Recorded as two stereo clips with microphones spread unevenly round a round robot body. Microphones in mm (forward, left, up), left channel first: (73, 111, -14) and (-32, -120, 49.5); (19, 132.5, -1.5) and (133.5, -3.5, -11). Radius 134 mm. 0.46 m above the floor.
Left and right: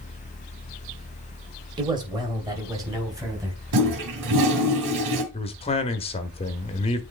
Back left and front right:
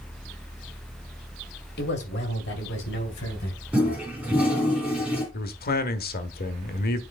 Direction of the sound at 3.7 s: 135° right.